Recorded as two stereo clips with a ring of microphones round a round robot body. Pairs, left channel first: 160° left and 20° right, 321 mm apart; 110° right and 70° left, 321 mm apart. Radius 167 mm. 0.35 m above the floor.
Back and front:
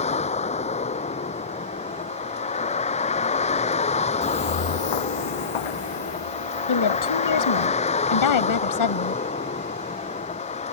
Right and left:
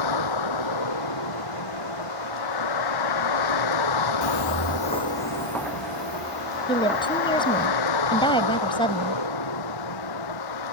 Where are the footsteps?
125° right; by 7.7 s 155° left.